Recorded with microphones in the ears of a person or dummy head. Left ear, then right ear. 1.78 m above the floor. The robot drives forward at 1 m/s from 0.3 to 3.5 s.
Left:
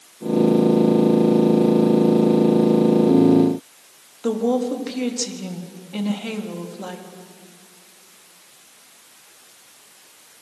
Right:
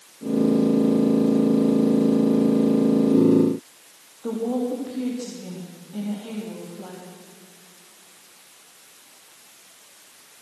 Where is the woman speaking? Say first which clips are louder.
Left 5 dB; 75° left (ahead or behind), 3.5 m.